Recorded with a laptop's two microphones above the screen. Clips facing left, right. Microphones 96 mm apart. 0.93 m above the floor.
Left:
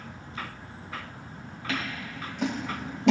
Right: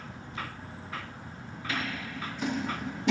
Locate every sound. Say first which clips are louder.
1.7 s scissors: left 1 dB; 75° left (ahead or behind), 2.5 m